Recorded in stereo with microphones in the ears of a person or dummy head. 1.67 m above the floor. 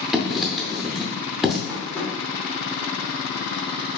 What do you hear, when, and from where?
0.1 s writing: centre (ahead or behind), 0.5 m
1.7 s tapping: 5° left (ahead or behind), 1.4 m